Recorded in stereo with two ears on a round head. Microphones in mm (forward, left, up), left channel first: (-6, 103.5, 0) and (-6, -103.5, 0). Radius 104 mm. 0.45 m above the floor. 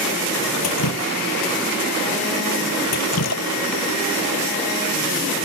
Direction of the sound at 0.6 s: 75° left (ahead or behind).